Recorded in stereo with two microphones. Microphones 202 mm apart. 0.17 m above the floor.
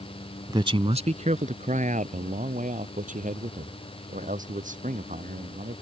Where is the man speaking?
20° right (ahead or behind); by 5.7 s 40° right (ahead or behind).